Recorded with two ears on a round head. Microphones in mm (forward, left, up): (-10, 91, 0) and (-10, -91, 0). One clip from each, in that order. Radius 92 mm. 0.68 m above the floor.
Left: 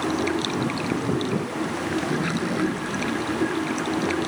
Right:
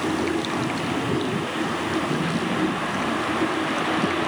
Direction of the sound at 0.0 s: 30° left (ahead or behind).